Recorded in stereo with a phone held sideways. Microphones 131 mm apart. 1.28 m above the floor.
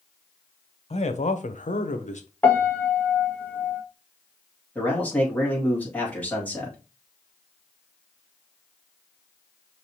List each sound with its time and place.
0.9 s a man speaking: 55° left (ahead or behind), 0.8 m; by 2.3 s 60° left (ahead or behind), 0.9 m
2.4 s a piano: 15° left (ahead or behind), 1.1 m
4.8 s a man speaking: 10° left (ahead or behind), 2.5 m